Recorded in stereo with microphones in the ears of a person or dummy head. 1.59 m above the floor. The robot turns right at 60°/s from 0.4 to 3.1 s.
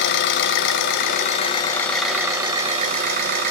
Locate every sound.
0.0 s an engine running: 85° left, 1.1 m; by 3.5 s 115° right, 1.1 m